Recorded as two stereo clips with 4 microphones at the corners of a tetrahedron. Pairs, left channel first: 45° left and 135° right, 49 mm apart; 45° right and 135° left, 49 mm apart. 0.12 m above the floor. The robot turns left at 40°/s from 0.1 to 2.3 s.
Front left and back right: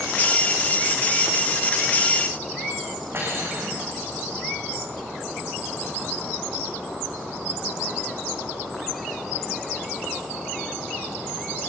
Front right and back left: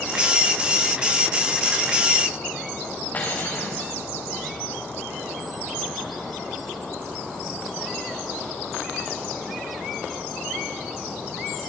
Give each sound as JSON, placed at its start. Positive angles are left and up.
{"t": 3.1, "sound": "cutlery clinking", "azimuth_deg": -100, "distance_m": 6.0}